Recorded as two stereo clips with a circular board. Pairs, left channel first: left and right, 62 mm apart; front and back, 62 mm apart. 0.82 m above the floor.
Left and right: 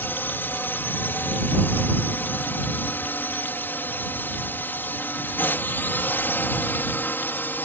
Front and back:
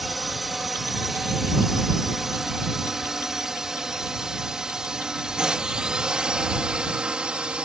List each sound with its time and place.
0.0 s a drone: 90° left; by 7.7 s 115° left